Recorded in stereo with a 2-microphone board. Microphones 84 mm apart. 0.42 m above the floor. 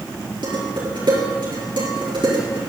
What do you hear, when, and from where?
0.4 s dishes clattering: 75° right (ahead or behind), 5.5 m